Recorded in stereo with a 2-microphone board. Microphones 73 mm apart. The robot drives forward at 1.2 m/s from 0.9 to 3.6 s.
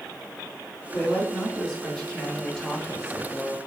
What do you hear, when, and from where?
0.9 s a woman speaking: 10° left (ahead or behind), 5 m; by 3.6 s 20° left (ahead or behind), 2.0 m